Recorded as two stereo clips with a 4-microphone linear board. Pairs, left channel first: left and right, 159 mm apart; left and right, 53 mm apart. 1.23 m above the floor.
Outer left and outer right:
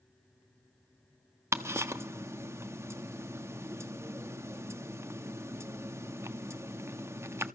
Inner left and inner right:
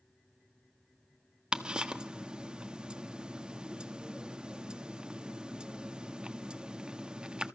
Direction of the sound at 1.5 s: 15° right (ahead or behind).